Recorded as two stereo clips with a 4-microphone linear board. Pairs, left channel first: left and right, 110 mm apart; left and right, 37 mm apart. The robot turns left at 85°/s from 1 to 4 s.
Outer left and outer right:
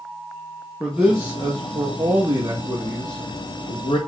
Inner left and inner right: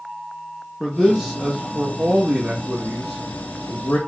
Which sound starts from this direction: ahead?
A man speaking, at 0.8 s.